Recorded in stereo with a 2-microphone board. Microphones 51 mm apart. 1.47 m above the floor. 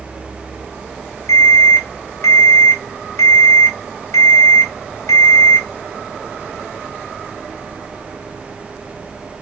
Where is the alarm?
80° left, 2.5 m.